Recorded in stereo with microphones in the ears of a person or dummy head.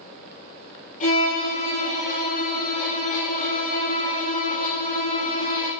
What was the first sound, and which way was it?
A violin, 45° left (ahead or behind).